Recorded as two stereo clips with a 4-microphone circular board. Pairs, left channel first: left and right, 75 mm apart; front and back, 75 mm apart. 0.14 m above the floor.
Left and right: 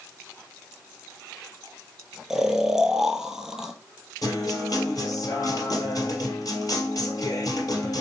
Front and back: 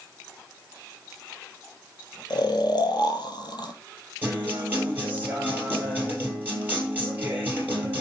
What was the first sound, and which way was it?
Snoring, 5° right.